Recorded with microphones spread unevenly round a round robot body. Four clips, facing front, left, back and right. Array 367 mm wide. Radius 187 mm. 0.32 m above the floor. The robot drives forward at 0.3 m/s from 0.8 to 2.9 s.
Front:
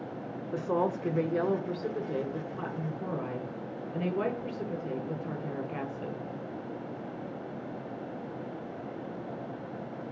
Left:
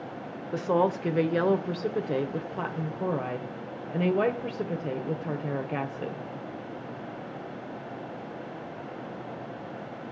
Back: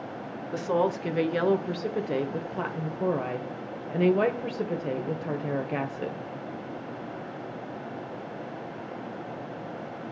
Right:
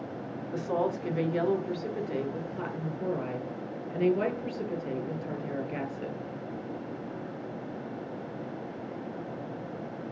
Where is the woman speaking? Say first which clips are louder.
Left 5 dB, back 3 dB; 95° left, 0.9 m; by 6.3 s 150° left, 1.1 m.